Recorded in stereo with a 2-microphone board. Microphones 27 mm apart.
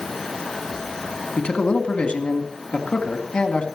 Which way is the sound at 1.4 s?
45° left (ahead or behind).